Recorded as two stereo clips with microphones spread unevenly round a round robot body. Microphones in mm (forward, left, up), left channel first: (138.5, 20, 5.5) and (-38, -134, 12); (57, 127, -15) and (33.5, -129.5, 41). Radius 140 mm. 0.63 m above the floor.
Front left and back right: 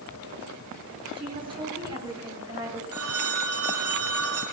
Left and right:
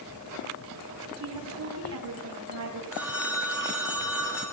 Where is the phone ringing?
Straight behind, 5.5 m.